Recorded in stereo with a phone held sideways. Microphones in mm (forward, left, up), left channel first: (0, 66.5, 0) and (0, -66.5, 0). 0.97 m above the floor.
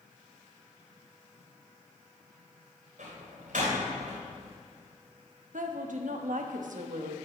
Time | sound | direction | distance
3.0 | a door slam | 85° right | 3 m
5.5 | a woman speaking | 75° right (ahead or behind) | 1.1 m